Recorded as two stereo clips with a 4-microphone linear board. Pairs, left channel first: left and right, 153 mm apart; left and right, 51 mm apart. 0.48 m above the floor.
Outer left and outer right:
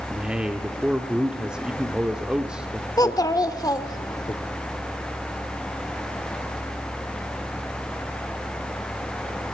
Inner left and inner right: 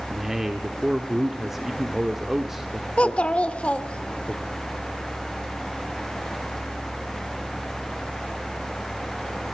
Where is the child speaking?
25° left (ahead or behind), 1.1 m.